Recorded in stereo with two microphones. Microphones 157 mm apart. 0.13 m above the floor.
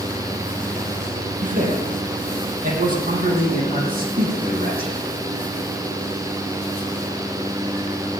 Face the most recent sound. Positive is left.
turn(degrees=-70)  # may be behind; listen again after turning